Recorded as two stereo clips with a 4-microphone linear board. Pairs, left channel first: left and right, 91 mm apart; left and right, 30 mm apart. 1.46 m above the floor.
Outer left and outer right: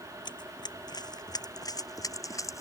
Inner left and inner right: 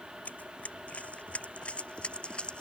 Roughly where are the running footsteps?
Left.